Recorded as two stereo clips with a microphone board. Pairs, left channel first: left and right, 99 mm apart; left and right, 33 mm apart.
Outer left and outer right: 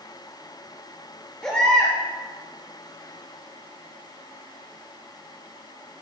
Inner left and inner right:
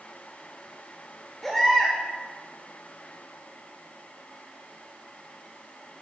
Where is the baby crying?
10° left (ahead or behind), 3 m.